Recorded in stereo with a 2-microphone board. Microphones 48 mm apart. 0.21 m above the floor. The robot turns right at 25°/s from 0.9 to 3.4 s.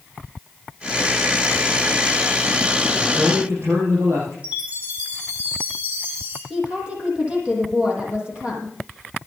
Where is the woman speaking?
25° right (ahead or behind), 7.5 m.